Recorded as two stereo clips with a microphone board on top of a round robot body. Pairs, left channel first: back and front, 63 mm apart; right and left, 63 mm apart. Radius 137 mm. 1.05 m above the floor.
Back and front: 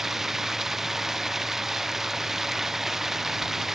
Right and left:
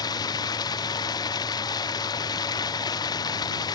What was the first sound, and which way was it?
Running water, 85° right.